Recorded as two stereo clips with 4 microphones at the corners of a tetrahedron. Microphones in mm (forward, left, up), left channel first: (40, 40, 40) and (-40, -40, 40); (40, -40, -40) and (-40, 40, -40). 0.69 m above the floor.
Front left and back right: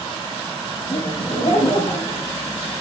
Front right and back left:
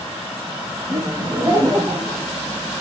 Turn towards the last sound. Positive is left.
turn(degrees=65)